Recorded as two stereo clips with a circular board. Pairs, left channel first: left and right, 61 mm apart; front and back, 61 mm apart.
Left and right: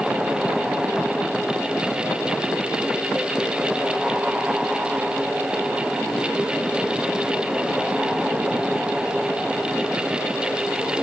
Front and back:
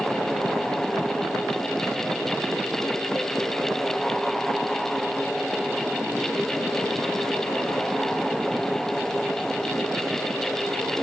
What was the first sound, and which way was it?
Only background noise.